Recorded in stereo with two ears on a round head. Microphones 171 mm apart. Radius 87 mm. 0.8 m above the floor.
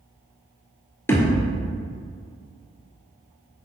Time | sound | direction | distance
1.1 | a thud | 15° left (ahead or behind) | 1.6 m